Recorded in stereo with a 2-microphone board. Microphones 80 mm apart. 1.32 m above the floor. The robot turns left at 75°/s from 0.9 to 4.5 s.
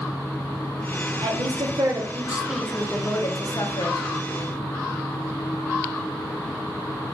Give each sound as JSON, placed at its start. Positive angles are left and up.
{"t": 1.2, "sound": "a woman speaking", "azimuth_deg": -80, "distance_m": 0.7}